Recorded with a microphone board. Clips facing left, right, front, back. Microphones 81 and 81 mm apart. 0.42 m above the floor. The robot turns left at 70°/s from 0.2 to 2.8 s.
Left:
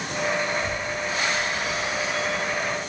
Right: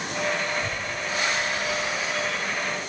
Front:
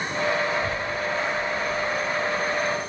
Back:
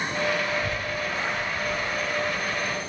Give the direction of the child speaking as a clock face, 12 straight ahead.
3 o'clock.